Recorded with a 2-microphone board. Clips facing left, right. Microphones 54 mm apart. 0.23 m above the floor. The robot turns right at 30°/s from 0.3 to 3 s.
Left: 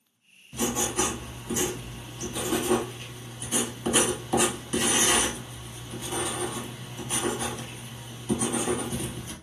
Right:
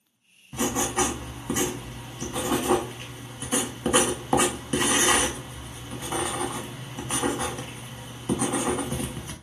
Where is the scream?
No scream in this recording.